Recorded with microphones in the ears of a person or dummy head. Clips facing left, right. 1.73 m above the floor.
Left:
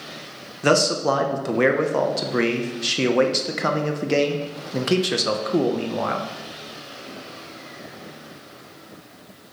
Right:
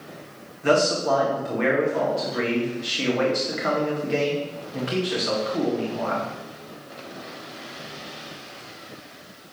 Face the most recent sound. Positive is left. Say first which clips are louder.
# left 1 dB
turn(degrees=75)  # may be behind; listen again after turning